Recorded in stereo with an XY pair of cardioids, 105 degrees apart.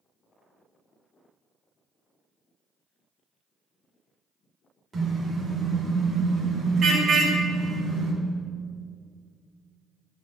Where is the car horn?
35° right, 5.5 m; by 8.1 s 60° right, 6 m.